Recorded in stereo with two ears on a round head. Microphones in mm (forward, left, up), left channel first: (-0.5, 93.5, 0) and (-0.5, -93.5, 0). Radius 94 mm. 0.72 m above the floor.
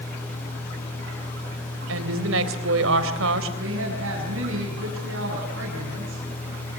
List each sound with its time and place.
1.9 s a woman speaking: 70° right (ahead or behind), 3.5 m
3.6 s a woman speaking: 65° right (ahead or behind), 6.5 m